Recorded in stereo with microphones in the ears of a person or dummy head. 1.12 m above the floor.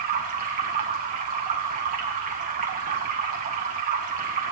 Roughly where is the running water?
Right.